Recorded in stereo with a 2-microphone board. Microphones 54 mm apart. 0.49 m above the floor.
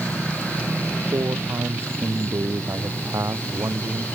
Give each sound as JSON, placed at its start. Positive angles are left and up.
{"t": 1.1, "sound": "a man speaking", "side_deg": -85}